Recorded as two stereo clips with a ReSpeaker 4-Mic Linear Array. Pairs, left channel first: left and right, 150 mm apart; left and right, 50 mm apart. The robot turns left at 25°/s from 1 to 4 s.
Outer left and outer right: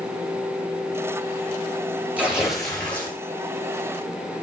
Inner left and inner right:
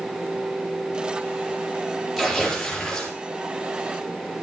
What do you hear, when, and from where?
2.2 s tearing paper: 10° right (ahead or behind), 5 m; by 3.2 s 15° left (ahead or behind), 5 m